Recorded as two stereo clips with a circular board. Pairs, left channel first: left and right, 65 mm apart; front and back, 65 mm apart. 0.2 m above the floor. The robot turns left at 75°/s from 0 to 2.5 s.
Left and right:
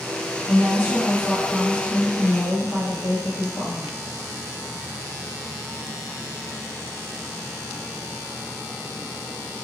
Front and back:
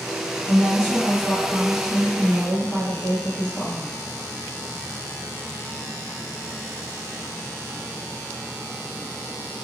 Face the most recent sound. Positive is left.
turn(degrees=-60)